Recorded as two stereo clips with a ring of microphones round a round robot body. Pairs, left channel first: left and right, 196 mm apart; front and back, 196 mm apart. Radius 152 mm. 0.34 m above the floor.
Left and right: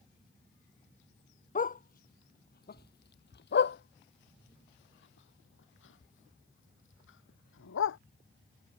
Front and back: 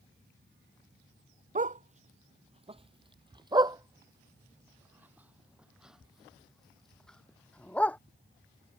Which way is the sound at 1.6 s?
135° left.